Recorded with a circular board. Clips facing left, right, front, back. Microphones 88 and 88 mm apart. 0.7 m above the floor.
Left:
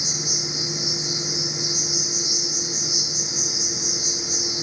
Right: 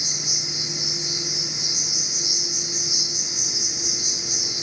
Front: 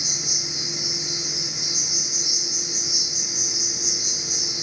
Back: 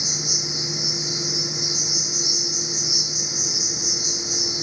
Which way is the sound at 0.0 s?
90° left.